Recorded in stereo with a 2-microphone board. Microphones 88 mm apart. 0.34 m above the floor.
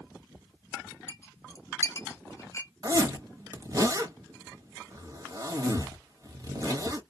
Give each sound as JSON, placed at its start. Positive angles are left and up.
{"t": 1.1, "sound": "a clink", "side_deg": 35, "distance_m": 0.6}
{"t": 2.8, "sound": "a zipper", "side_deg": -45, "distance_m": 1.0}